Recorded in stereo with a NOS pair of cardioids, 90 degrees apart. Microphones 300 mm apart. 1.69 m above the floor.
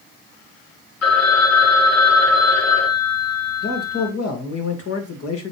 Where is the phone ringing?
60° left, 2 m.